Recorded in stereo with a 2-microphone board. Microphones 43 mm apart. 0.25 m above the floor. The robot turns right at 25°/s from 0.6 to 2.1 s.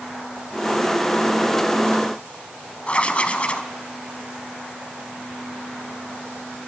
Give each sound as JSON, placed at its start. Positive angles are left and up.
{"t": 2.9, "sound": "writing", "side_deg": 30, "distance_m": 0.9}